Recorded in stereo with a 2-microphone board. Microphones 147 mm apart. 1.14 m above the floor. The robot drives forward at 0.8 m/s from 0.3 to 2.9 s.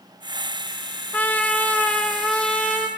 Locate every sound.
1.1 s a trumpet: 10° left (ahead or behind), 1.4 m; by 2.9 s 5° left (ahead or behind), 3 m